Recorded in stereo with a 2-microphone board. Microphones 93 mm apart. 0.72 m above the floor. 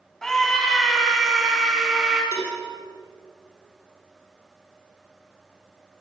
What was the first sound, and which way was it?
A scream, 5° left (ahead or behind).